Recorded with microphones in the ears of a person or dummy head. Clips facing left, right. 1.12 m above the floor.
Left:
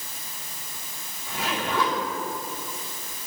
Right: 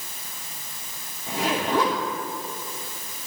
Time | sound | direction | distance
1.3 | a zipper | 35° right (ahead or behind) | 2 m